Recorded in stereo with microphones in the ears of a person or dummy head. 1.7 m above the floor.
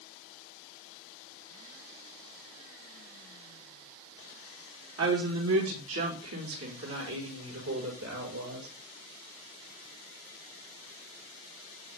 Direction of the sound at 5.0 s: 90° right.